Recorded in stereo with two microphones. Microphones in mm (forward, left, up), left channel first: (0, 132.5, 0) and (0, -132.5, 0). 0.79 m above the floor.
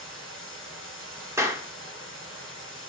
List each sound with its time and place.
0.0 s running water: 50° left (ahead or behind), 4 m
1.4 s a clap: 10° right (ahead or behind), 1.6 m